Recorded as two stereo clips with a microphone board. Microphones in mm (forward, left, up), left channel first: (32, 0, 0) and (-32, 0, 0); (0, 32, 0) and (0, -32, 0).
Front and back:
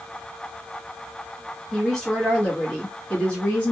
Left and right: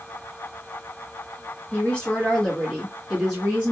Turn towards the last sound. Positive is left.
turn(degrees=-40)